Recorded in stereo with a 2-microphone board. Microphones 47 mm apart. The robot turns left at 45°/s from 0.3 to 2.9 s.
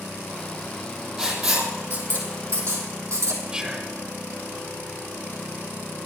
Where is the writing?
15° right (ahead or behind), 3 m; by 3.4 s 85° right, 3 m.